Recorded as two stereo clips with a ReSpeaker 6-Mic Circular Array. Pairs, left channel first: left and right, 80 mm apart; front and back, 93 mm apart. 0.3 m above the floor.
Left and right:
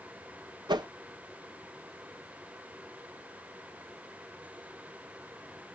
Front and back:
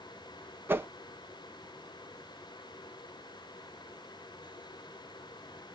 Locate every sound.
0.7 s a whoosh: 115° right, 0.6 m